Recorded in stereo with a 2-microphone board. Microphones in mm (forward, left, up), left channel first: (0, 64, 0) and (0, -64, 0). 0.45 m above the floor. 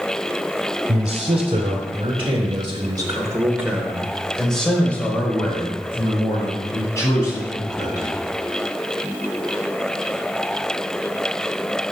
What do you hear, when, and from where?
0.9 s a man speaking: 60° right (ahead or behind), 1.7 m; by 8.1 s 30° left (ahead or behind), 3.5 m